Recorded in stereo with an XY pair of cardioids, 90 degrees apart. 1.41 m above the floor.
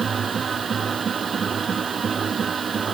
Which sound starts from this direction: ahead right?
A machine running, at 0.0 s.